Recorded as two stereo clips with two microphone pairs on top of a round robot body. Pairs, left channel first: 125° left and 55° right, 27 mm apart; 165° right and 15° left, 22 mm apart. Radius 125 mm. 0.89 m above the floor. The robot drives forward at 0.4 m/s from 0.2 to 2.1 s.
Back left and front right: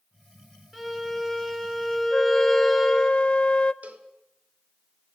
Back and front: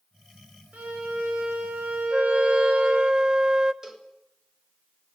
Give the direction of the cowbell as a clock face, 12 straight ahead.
2 o'clock.